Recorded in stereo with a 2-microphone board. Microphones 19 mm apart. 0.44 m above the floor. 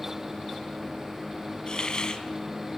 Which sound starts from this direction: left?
A hiss, at 1.7 s.